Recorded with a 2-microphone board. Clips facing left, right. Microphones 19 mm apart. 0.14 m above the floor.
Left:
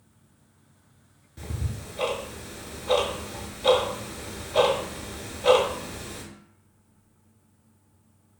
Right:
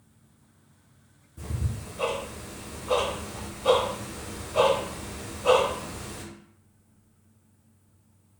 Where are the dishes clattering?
No dishes clattering in this recording.